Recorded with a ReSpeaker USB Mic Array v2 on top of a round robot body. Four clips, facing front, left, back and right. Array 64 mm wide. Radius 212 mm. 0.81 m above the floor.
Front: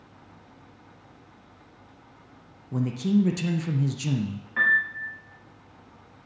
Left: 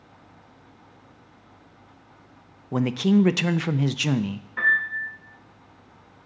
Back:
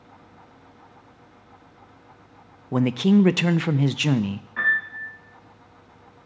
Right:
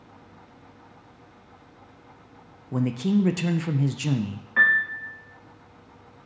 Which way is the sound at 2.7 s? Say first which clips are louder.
Left 3 dB, back 6 dB; 155° left.